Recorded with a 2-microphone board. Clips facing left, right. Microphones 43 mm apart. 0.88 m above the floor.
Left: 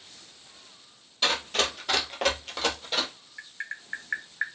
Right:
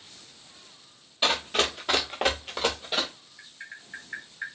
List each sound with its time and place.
1.2 s running footsteps: 15° right (ahead or behind), 1.0 m; by 3.1 s 5° right (ahead or behind), 1.1 m
3.4 s tapping: 85° left, 0.7 m